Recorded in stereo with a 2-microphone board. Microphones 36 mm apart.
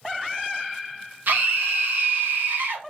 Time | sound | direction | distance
1.3 | a scream | 65° right (ahead or behind) | 0.7 m